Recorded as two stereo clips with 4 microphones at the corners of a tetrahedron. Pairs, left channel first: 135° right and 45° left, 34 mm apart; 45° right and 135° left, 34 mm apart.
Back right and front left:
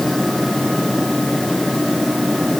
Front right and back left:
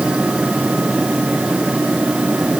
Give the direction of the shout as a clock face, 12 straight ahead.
I don't hear a shout.